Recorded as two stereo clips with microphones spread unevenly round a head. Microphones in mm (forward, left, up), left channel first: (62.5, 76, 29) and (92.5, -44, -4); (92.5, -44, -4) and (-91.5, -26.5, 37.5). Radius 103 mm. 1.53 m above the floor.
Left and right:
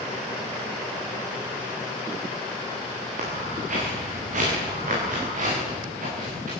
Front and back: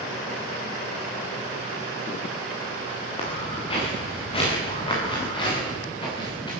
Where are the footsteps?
65° right, 9.5 m; by 6.5 s 70° right, 11 m.